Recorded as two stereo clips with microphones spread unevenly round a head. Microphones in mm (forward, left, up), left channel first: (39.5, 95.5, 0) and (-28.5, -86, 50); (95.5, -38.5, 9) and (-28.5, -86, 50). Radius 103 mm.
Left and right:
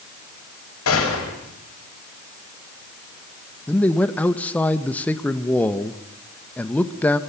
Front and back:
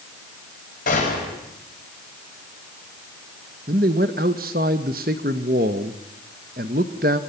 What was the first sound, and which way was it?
A gunshot, 60° left.